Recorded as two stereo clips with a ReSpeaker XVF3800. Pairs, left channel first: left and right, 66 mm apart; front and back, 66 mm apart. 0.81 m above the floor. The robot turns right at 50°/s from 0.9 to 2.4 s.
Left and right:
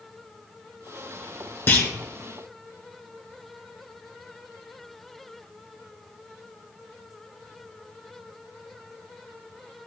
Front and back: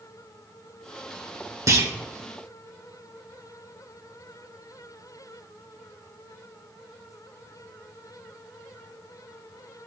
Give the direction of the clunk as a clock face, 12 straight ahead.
7 o'clock.